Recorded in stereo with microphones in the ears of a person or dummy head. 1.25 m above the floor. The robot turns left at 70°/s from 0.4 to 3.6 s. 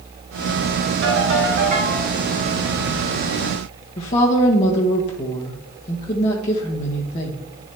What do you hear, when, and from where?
1.0 s a ringtone: 85° right, 3.5 m; by 2.0 s 155° right, 3.5 m
4.0 s a woman speaking: 35° left (ahead or behind), 1.3 m